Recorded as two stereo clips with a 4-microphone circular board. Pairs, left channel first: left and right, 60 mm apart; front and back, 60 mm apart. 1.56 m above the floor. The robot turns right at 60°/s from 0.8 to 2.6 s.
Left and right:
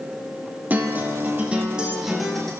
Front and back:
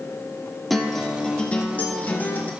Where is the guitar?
85° right, 1.0 m; by 2.5 s 15° left, 1.0 m.